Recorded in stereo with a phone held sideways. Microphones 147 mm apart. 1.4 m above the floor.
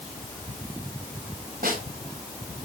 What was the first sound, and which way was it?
A snare drum, 85° right.